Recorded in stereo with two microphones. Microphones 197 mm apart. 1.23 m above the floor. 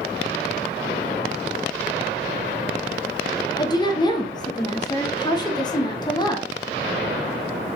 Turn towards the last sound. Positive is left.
turn(degrees=20)  # may be behind; listen again after turning